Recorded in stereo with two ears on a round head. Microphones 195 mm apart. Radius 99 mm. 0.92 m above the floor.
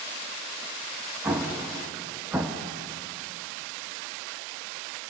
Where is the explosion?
5° right (ahead or behind), 1.3 m.